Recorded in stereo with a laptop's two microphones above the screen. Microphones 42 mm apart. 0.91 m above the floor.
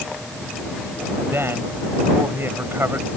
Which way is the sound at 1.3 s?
70° right (ahead or behind).